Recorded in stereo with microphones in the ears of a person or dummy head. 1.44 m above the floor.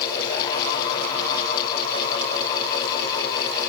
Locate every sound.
Only background noise.